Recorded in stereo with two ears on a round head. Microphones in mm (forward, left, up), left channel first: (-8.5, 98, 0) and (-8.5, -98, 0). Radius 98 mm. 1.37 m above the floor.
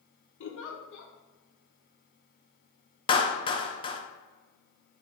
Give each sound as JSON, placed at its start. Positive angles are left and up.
{"t": 0.4, "sound": "a giggle", "side_deg": 60, "distance_m": 0.7}
{"t": 3.1, "sound": "a clap", "side_deg": 20, "distance_m": 0.5}